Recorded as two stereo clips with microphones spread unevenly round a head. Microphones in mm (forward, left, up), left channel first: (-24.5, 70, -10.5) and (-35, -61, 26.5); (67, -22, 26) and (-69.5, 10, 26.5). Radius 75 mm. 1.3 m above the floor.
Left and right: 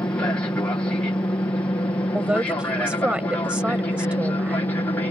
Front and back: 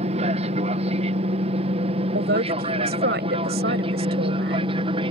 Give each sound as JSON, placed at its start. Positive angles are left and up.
{"t": 0.0, "sound": "an aircraft", "azimuth_deg": 145}
{"t": 2.1, "sound": "a man speaking", "azimuth_deg": -175}